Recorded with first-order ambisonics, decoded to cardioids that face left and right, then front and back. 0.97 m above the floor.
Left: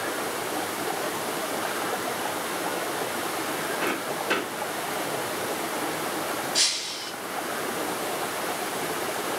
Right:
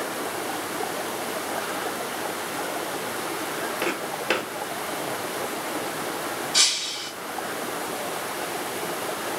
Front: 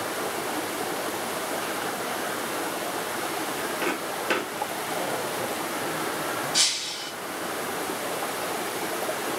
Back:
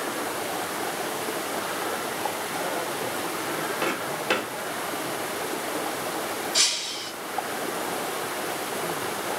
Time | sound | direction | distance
3.8 | footsteps | 90° right | 1.0 m
6.5 | breaking glass | 75° right | 1.2 m